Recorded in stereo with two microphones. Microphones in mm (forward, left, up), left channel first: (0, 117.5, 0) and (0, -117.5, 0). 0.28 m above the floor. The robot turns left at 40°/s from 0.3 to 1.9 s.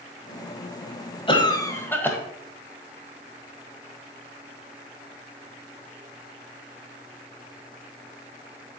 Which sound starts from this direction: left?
A cough, at 1.3 s.